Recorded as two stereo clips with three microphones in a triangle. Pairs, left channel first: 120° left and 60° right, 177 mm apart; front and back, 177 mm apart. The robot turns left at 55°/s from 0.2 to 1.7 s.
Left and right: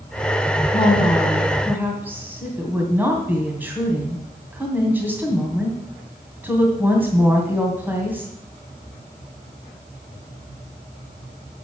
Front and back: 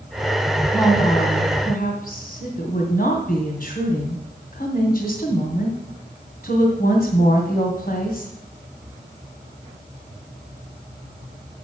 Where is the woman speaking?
70° left, 2.5 m; by 8.3 s 20° left, 2.5 m.